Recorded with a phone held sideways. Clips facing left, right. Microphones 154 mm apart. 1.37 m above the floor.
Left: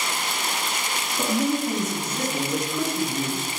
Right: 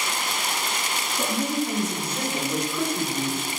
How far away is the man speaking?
About 1.4 m.